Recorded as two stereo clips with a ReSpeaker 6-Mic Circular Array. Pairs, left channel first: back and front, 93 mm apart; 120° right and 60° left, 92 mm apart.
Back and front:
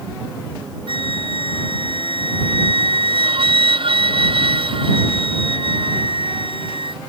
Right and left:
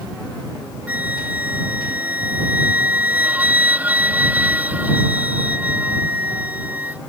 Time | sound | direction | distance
0.9 | a flute | 10° right | ?